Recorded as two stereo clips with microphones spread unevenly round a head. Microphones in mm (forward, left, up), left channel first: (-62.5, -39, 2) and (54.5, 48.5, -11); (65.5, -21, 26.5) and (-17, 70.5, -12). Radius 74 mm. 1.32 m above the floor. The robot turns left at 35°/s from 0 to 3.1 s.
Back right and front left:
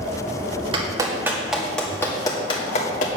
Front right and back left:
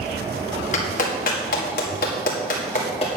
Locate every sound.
0.7 s a clap: 20° right, 2 m; by 3.1 s 105° right, 2 m